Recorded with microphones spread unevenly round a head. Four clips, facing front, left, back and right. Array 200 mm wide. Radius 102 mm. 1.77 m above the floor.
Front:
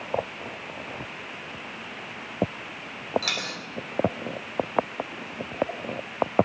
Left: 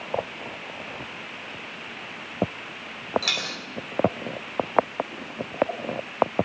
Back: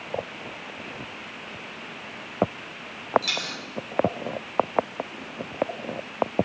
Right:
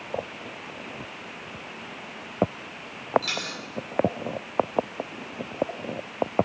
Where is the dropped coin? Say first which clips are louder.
Left 1 dB, even; 55° left, 3 m.